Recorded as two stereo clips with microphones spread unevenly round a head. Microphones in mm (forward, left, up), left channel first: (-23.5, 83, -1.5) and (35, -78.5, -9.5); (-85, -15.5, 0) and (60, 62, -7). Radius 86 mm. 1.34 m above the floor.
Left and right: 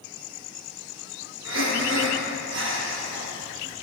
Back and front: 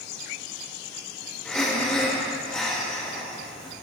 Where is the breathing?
70° right, 1.1 m.